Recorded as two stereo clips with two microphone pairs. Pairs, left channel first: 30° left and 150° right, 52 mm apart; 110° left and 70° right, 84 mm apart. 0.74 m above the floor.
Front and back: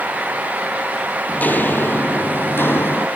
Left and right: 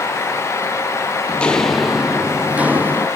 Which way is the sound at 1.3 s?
50° left.